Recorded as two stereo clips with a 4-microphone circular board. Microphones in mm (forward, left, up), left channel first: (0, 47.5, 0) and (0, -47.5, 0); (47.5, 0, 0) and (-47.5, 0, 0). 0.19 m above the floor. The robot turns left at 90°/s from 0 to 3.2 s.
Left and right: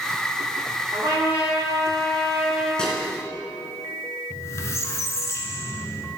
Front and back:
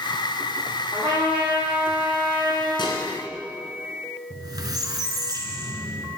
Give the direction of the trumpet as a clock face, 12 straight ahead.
4 o'clock.